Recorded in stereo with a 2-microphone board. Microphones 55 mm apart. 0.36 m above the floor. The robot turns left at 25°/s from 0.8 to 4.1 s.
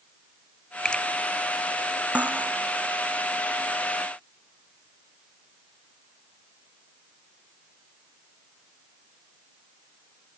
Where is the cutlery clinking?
25° right (ahead or behind); by 2.5 s 35° right (ahead or behind).